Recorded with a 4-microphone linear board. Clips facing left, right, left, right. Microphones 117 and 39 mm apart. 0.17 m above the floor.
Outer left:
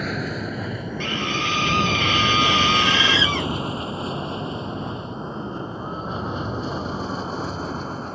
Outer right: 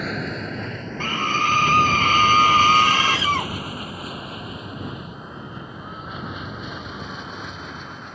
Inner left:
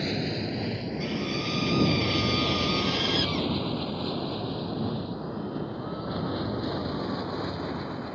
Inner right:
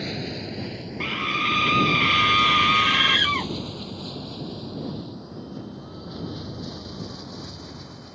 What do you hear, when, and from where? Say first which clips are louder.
0.0 s an aircraft: outer left 1 dB, inner left 2 dB; centre (ahead or behind); by 8.2 s 35° left (ahead or behind)
1.0 s a scream: outer right 4 dB, inner right 8 dB; 45° right (ahead or behind)